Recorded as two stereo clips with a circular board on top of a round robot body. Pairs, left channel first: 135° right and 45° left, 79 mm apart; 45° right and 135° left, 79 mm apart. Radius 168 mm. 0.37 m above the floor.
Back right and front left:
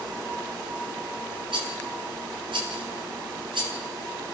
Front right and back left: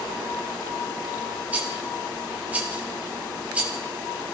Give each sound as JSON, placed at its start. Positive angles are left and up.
{"t": 1.5, "sound": "a rattle", "azimuth_deg": 60, "distance_m": 3.5}